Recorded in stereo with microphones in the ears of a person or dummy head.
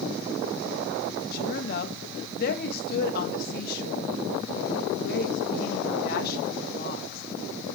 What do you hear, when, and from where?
1.3 s a woman speaking: 55° left (ahead or behind), 2 m